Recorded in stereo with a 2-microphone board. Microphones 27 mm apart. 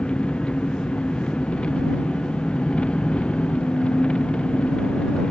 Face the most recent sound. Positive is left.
turn(degrees=40)  # may be behind; listen again after turning